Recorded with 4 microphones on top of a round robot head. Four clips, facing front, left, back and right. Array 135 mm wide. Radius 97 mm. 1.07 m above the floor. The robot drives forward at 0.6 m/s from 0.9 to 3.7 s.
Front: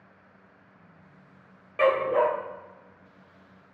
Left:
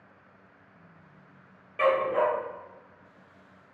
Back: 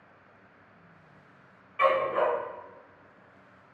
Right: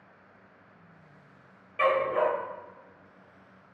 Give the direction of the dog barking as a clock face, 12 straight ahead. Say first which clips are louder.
Left 1 dB, front 2 dB; 12 o'clock.